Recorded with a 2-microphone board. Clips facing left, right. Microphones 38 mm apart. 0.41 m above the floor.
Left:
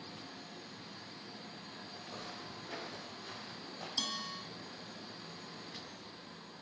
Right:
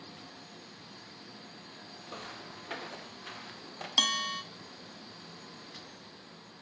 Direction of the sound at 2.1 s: 50° right (ahead or behind).